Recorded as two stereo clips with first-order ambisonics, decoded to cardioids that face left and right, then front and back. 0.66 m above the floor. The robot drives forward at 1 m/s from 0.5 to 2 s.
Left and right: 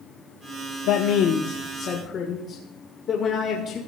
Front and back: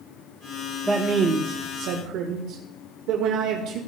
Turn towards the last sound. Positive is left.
turn(degrees=150)